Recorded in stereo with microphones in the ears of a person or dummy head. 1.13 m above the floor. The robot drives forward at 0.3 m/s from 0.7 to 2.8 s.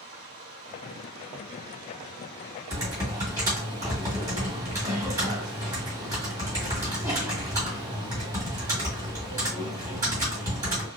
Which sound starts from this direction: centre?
Typing on a keyboard, at 2.7 s.